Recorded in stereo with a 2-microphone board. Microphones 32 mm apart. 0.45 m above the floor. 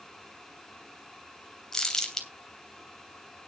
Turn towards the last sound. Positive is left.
turn(degrees=15)  # may be behind; listen again after turning